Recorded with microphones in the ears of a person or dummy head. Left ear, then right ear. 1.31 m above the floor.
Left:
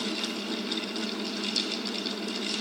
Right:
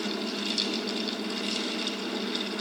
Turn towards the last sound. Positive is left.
No sound to turn to.